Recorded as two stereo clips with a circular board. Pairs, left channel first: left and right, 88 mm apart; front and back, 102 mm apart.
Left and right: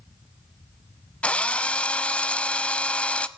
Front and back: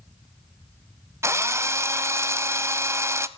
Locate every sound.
1.2 s a drill: 155° left, 0.7 m